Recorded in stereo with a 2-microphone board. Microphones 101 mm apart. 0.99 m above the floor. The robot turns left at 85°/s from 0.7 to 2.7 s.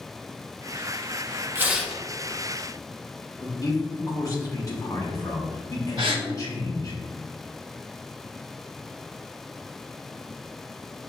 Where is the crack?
I don't hear a crack.